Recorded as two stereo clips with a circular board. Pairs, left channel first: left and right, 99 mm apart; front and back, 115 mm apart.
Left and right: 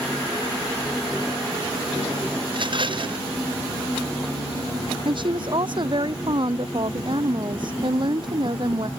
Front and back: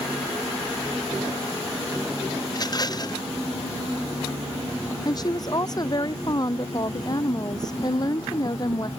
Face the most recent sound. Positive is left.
turn(degrees=-55)